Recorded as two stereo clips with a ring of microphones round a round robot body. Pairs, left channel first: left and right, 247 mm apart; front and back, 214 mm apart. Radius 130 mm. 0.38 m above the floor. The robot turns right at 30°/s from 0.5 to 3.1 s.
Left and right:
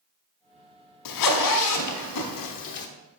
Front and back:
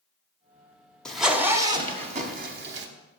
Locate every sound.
1.1 s a zipper: 85° left, 0.7 m; by 2.9 s 140° left, 0.7 m